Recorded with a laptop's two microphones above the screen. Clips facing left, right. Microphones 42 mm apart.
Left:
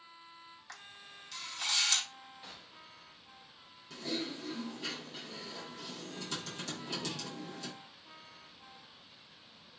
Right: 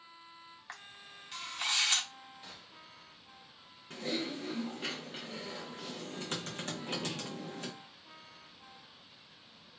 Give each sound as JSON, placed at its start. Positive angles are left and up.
{"t": 0.7, "sound": "a camera shutter", "side_deg": -30, "distance_m": 0.9}
{"t": 2.4, "sound": "a gunshot", "side_deg": 5, "distance_m": 0.5}
{"t": 3.9, "sound": "typing on a keyboard", "side_deg": -45, "distance_m": 0.9}